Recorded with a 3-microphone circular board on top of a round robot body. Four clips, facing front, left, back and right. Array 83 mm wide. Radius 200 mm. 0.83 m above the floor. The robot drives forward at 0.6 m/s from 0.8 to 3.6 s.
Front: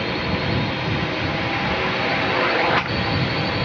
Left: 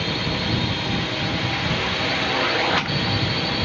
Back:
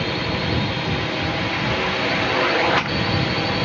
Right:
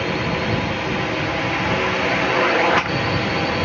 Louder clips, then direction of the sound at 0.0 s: Right 4 dB, even; 85° right.